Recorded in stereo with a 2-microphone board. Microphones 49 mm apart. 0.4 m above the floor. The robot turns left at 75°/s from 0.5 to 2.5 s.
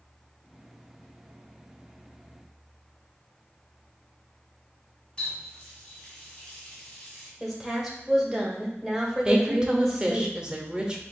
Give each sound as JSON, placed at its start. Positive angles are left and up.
{"t": 5.2, "sound": "a running tap", "side_deg": 15, "distance_m": 2.0}
{"t": 7.4, "sound": "a woman speaking", "side_deg": -5, "distance_m": 1.4}
{"t": 9.2, "sound": "a woman speaking", "side_deg": -20, "distance_m": 0.8}